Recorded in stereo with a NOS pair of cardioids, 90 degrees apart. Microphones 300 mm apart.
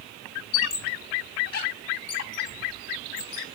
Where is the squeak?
55° left, 2 m.